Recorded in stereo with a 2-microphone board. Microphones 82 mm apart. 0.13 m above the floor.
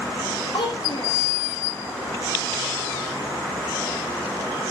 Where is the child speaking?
65° left (ahead or behind), 4.5 m.